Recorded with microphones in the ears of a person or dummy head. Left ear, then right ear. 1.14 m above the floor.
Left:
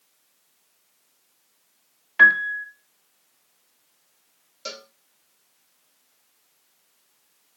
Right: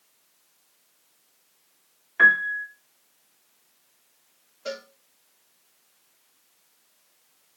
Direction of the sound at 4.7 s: 75° left (ahead or behind).